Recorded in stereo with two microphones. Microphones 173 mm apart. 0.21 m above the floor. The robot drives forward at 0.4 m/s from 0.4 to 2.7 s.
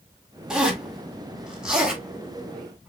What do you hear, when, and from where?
0.5 s a zipper: 5° right (ahead or behind), 1.6 m